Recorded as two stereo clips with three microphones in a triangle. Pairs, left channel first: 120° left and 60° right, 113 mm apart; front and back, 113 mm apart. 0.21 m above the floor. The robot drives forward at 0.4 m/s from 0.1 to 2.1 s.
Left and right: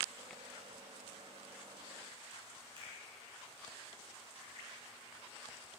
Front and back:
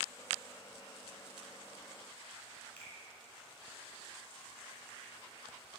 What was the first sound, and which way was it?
A finger snap, 75° right.